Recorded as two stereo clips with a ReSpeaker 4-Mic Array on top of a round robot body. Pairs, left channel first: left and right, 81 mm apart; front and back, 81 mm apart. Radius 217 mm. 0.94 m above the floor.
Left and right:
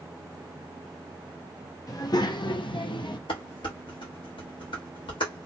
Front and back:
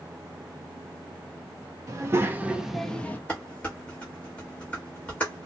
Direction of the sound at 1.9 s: 130° left.